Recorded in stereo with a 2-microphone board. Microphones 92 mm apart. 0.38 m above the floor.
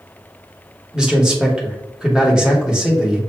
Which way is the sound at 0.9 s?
10° right (ahead or behind).